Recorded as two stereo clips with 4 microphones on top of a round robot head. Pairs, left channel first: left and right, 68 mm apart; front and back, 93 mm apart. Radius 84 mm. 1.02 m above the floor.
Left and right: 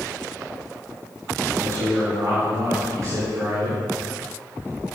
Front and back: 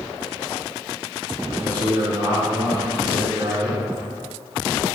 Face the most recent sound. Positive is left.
turn(degrees=-120)